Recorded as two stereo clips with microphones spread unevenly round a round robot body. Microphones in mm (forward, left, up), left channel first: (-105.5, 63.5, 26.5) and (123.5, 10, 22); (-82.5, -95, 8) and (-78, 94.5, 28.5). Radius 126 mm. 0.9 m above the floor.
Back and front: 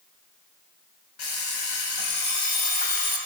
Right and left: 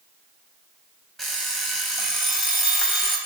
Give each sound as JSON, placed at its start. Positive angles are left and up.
{"t": 1.2, "sound": "an alarm clock", "azimuth_deg": 180, "distance_m": 2.5}